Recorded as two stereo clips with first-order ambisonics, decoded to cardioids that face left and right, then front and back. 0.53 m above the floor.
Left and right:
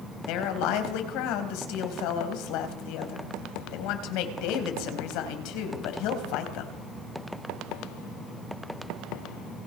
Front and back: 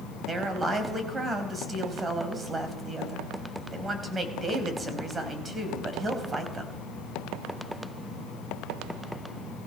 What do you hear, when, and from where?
0.3 s a woman speaking: 105° left, 3.5 m